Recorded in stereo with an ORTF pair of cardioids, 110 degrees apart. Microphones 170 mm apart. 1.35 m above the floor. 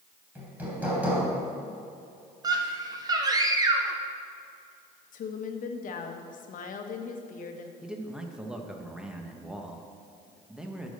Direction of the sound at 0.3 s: 10° right.